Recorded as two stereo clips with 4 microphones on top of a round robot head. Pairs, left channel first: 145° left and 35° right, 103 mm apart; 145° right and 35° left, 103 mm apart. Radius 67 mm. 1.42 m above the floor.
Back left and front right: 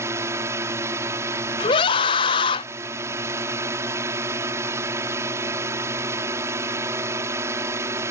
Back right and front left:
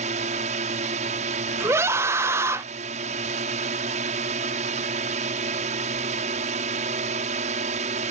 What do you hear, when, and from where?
0.0 s a drone: 30° left
1.6 s a scream: 105° left